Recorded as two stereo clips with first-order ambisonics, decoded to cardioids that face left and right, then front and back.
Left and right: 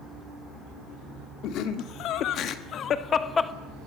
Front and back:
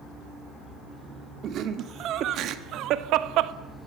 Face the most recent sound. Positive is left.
turn(degrees=170)